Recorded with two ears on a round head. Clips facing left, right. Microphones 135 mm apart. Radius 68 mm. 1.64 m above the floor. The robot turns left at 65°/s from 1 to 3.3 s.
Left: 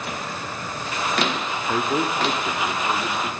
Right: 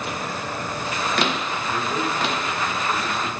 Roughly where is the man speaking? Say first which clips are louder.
Left 4 dB; left.